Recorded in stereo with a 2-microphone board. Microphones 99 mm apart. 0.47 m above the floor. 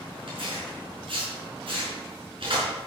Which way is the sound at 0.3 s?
60° right (ahead or behind).